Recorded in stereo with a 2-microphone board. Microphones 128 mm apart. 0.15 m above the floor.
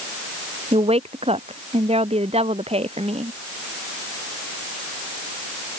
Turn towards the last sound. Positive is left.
turn(degrees=-50)  # may be behind; listen again after turning